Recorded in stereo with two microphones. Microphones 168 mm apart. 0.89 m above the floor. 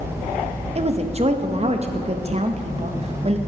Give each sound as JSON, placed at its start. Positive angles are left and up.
{"t": 0.8, "sound": "a woman speaking", "side_deg": -40, "distance_m": 0.6}